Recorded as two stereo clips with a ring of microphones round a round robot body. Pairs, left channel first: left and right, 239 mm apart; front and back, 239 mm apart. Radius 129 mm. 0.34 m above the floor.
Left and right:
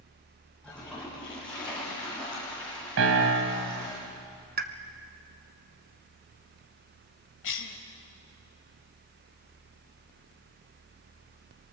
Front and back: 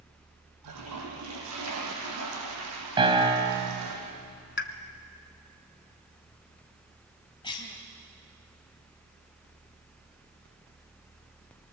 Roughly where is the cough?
Left.